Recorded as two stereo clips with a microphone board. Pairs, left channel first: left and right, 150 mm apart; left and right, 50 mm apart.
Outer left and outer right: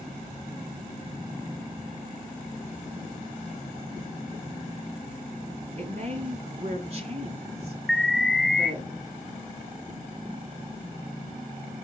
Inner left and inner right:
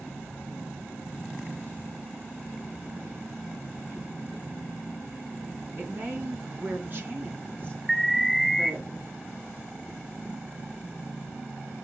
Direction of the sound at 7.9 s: Centre (ahead or behind).